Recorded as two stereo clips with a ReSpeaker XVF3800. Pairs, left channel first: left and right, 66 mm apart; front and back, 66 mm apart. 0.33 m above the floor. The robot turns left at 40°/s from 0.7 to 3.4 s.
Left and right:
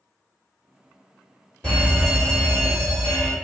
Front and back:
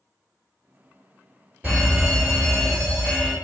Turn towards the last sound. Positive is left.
turn(degrees=85)